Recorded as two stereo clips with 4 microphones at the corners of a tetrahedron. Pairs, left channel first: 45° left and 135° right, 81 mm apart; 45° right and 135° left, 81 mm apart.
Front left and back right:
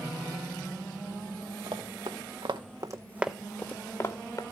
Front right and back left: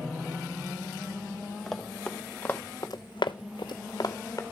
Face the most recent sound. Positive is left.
turn(degrees=0)